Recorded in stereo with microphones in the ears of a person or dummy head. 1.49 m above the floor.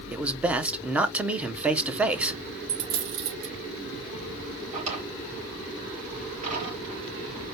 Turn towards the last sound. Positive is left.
turn(degrees=-40)  # may be behind; listen again after turning